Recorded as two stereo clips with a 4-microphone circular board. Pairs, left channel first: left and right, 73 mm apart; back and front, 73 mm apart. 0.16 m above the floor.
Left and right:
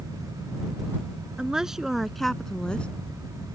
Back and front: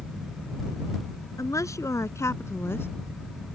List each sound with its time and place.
1.4 s a woman speaking: 165° right; by 2.9 s 155° left